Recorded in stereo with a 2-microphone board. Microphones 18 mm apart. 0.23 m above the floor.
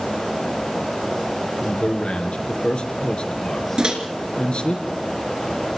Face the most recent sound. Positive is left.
turn(degrees=-45)  # may be behind; listen again after turning